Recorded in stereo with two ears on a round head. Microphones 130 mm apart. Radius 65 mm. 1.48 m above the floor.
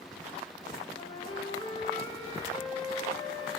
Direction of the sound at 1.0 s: 30° left (ahead or behind).